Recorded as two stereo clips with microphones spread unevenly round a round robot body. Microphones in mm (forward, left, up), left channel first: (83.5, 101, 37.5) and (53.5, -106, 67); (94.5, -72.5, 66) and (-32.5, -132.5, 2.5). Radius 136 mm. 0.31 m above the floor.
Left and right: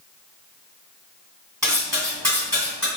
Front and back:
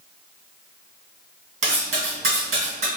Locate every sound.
1.6 s cutlery clinking: 175° right, 1.7 m